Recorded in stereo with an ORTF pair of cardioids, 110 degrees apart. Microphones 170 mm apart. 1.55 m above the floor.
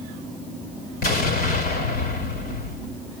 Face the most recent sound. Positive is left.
turn(degrees=70)